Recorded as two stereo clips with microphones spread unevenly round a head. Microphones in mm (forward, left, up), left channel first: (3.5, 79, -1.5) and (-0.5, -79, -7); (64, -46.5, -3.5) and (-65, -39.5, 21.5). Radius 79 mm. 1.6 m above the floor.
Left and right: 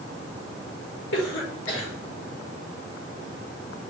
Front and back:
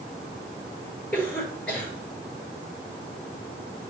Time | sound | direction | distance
1.1 | a cough | 80° left | 4.5 m